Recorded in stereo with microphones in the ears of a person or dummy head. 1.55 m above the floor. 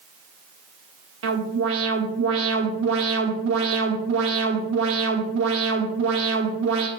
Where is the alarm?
70° right (ahead or behind), 1.4 m.